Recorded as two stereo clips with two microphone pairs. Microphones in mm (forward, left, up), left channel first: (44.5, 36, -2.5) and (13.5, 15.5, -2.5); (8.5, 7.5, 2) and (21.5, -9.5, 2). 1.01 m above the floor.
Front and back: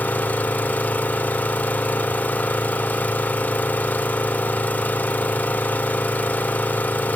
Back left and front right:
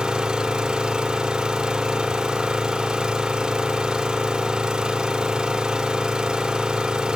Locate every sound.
0.0 s an engine running: 5° right, 2 m